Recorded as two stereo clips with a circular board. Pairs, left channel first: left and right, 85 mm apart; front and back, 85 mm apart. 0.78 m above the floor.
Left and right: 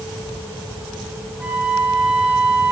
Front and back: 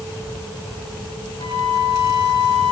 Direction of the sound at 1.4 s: 15° right.